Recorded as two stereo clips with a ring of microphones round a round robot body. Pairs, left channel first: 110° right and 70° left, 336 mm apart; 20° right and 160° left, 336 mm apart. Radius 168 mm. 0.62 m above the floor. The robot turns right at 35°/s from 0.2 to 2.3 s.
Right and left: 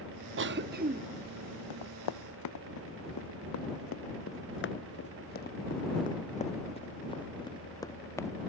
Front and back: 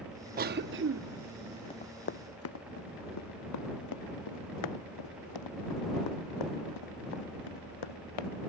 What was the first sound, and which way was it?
A cough, 105° left.